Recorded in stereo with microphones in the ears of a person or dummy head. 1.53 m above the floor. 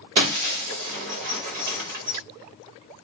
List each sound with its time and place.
0.2 s breaking glass: 35° right (ahead or behind), 1.1 m